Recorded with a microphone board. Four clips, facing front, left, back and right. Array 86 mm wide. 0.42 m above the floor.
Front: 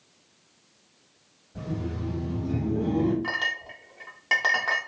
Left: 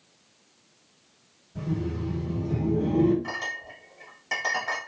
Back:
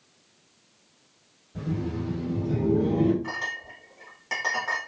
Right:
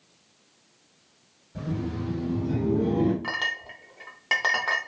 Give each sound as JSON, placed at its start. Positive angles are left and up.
{"t": 1.6, "sound": "laughter", "azimuth_deg": -120, "distance_m": 1.9}
{"t": 3.2, "sound": "a clink", "azimuth_deg": -60, "distance_m": 0.7}